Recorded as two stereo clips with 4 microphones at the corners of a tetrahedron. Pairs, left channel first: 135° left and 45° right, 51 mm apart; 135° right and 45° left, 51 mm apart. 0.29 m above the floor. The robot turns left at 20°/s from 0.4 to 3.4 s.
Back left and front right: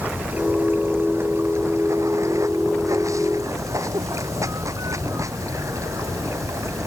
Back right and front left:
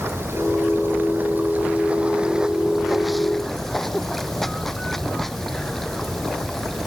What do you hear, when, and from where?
0.0 s running water: 10° left; by 6.9 s 50° right